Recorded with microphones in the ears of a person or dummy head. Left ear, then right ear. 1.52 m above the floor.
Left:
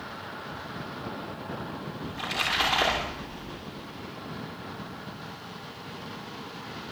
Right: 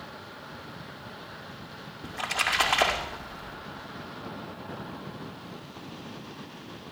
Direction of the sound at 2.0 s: 30° right (ahead or behind).